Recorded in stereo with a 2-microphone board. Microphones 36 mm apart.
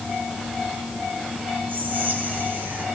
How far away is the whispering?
About 3 m.